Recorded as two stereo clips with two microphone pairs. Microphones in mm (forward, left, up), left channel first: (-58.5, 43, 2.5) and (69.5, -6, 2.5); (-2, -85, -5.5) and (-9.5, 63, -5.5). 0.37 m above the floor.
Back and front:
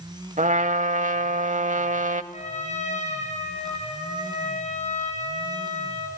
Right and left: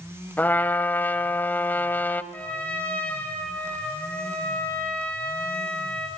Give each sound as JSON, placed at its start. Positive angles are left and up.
{"t": 0.4, "sound": "a trumpet", "azimuth_deg": -10, "distance_m": 0.8}
{"t": 2.3, "sound": "a trumpet", "azimuth_deg": -165, "distance_m": 3.5}